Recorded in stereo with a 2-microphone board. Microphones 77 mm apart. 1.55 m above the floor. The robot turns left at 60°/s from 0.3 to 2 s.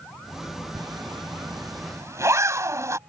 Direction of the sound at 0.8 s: 55° right (ahead or behind).